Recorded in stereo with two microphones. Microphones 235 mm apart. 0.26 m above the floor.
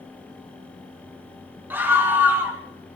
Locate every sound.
1.7 s a scream: 10° right (ahead or behind), 3.5 m